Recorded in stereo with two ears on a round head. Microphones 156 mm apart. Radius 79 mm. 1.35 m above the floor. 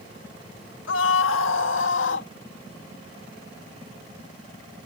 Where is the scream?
75° left (ahead or behind); by 2.3 s 85° left.